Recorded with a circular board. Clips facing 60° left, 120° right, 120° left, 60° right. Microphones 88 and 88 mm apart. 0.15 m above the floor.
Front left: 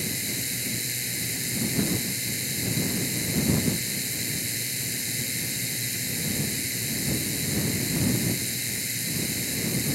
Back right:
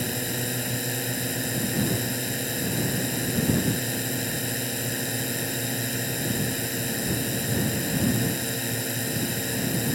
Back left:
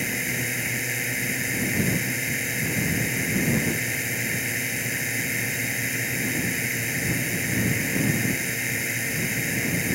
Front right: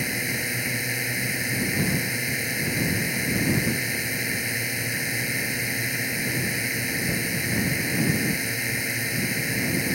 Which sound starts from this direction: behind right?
A drone, at 0.0 s.